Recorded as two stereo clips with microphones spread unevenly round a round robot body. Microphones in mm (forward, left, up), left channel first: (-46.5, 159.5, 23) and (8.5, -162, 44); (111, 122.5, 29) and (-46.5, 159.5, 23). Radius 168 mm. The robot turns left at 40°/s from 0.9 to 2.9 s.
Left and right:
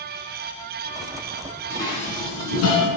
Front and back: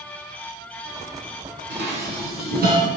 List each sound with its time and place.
1.7 s dishes clattering: 175° right, 3.5 m; by 2.9 s 135° left, 3.5 m